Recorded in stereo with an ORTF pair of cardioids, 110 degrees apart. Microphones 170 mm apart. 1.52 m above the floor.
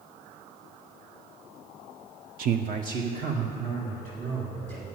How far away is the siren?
No siren in this recording.